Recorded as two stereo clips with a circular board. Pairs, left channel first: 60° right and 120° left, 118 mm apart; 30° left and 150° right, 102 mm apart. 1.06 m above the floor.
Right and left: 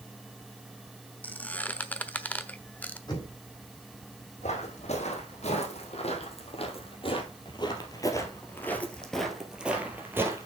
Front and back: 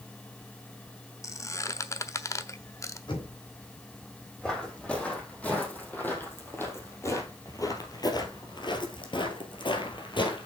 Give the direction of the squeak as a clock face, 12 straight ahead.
12 o'clock.